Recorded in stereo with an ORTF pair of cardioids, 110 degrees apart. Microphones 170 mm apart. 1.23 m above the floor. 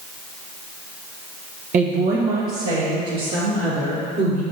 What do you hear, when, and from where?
1.7 s a woman speaking: 55° right, 1.0 m; by 4.4 s 75° right, 3 m